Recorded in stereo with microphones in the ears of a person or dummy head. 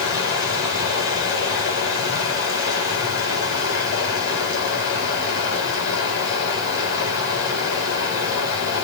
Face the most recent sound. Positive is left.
turn(degrees=70)  # may be behind; listen again after turning